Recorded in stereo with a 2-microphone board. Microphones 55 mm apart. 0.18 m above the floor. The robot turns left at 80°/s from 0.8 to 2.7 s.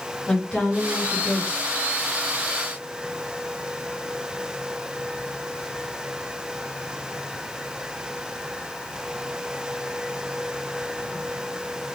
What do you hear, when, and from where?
0.3 s a woman speaking: 155° left, 1.8 m; by 1.8 s 70° left, 1.8 m